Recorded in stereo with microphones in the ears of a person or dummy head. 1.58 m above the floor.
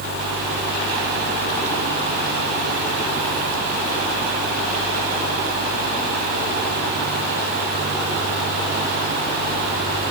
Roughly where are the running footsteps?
I don't hear running footsteps.